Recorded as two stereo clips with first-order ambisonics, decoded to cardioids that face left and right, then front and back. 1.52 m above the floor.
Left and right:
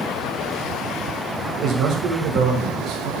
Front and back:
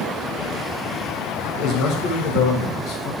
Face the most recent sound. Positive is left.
turn(degrees=-40)